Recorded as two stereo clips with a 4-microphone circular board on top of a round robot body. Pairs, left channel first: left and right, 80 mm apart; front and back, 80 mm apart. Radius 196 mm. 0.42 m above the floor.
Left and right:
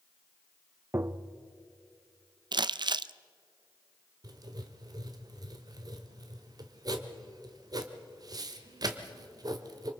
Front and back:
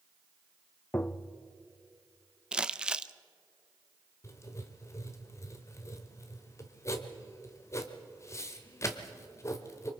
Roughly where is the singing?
No singing in this recording.